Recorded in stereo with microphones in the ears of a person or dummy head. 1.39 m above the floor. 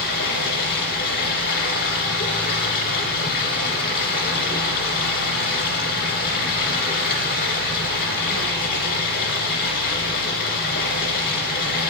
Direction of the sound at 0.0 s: 55° left (ahead or behind).